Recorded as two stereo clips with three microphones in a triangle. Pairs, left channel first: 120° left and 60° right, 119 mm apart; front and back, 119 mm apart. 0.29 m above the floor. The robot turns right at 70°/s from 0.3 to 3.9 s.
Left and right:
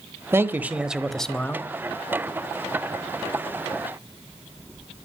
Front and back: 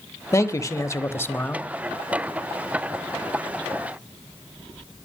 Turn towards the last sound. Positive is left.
turn(degrees=-135)